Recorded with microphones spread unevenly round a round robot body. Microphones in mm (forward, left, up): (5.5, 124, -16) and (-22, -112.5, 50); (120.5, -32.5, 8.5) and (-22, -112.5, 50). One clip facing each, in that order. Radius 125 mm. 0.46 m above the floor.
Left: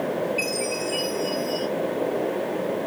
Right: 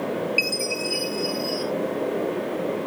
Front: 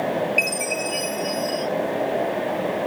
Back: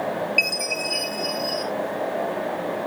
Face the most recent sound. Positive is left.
turn(degrees=-55)